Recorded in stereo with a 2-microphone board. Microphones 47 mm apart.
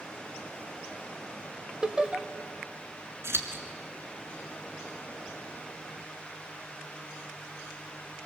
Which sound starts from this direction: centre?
Laughter, at 1.8 s.